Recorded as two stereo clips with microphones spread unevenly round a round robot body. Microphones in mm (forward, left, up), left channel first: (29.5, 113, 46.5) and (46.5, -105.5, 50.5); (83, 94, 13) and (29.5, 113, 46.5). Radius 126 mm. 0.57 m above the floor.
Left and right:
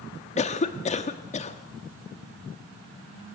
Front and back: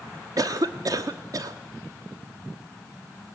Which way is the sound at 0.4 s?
130° left.